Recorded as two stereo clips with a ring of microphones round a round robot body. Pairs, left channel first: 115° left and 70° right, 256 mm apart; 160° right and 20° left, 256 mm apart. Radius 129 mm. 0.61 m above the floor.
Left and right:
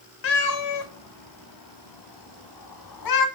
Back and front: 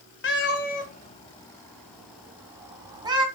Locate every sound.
0.2 s a cat meowing: 155° left, 1.5 m; by 3.2 s 95° left, 2.5 m